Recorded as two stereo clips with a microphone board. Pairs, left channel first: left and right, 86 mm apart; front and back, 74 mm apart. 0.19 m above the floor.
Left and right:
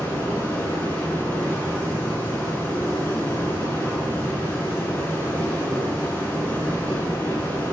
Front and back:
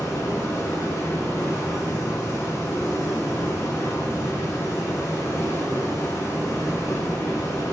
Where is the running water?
30° left, 2 m.